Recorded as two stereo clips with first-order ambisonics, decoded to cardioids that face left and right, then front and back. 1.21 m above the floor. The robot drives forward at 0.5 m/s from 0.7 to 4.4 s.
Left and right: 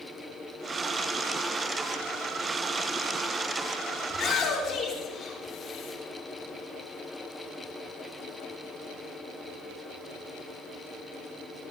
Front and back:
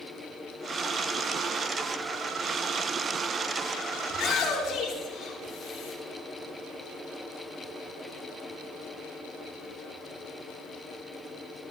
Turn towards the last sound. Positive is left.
turn(degrees=50)